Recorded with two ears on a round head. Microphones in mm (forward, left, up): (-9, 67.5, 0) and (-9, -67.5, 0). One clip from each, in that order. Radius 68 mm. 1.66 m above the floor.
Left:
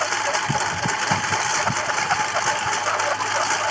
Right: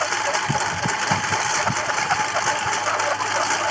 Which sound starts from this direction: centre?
A lawn mower, at 0.0 s.